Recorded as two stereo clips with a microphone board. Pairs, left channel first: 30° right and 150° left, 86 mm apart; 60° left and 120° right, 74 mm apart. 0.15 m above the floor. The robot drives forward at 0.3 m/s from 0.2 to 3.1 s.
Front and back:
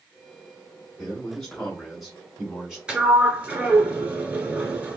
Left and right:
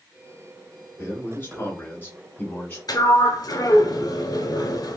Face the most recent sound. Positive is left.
turn(degrees=75)